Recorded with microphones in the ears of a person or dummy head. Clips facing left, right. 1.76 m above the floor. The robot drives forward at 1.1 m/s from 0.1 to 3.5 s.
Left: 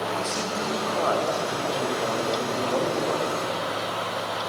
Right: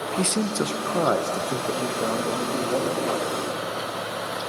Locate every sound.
0.2 s a man speaking: 50° right (ahead or behind), 0.8 m; by 3.4 s 10° right (ahead or behind), 3.5 m